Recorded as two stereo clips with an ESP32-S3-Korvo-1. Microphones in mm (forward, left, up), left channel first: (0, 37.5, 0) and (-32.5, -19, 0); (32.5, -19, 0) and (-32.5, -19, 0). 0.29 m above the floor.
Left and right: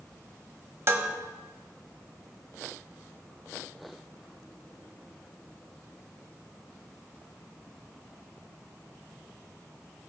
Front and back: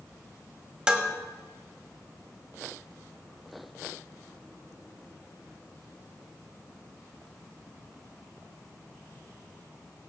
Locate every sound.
0.9 s dishes clattering: 105° right, 1.1 m